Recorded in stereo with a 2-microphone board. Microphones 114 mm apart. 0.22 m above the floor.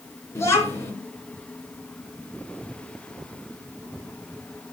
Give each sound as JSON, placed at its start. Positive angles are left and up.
{"t": 0.3, "sound": "a child speaking", "side_deg": 25, "distance_m": 2.5}